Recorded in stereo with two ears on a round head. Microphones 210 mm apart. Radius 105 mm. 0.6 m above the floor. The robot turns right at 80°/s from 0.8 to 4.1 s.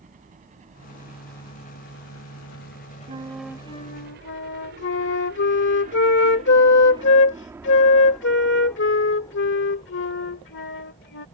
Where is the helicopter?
35° right (ahead or behind); by 11.4 s 25° left (ahead or behind).